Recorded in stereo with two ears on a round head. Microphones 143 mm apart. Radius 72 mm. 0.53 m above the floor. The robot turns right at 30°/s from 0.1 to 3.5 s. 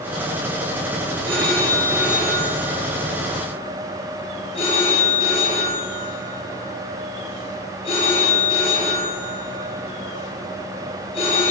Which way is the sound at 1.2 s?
35° right.